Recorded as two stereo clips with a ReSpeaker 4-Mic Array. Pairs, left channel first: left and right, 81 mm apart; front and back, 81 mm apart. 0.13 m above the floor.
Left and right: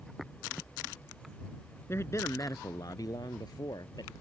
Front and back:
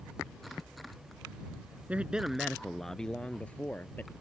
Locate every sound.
1.9 s a man speaking: 120° left; by 4.1 s 65° left